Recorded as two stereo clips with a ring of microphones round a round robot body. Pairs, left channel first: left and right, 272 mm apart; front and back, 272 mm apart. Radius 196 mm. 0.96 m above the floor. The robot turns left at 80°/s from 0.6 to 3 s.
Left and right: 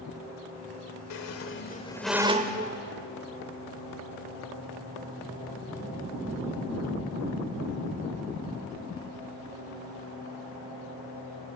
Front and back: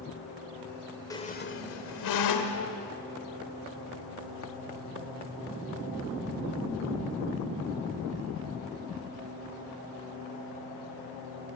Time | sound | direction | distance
1.1 | a squeak | 80° left | 1.4 m